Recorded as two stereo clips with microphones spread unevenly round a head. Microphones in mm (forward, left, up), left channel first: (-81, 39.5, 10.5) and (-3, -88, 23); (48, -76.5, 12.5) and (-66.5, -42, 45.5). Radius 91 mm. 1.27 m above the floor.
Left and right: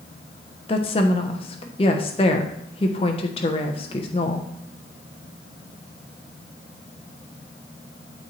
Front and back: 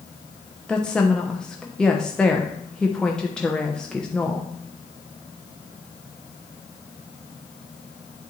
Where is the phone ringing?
No phone ringing in this recording.